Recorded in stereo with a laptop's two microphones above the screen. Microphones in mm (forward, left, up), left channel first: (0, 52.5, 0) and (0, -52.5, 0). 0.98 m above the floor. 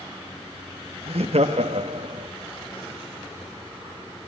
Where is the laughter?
65° right (ahead or behind), 1.2 m; by 2.3 s 60° right (ahead or behind), 1.5 m.